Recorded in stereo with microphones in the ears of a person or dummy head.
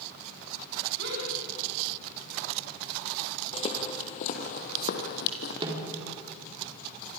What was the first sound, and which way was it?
A gasp, 60° right (ahead or behind).